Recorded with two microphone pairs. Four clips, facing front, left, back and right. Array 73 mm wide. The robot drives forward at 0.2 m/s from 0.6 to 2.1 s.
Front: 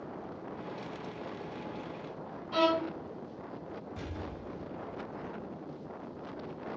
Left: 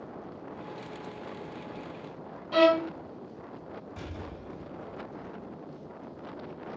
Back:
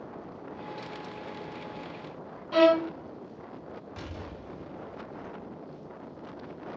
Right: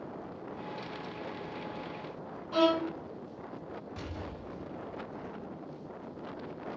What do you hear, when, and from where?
2.5 s a violin: 140° left, 1.1 m
4.0 s an explosion: 160° right, 1.6 m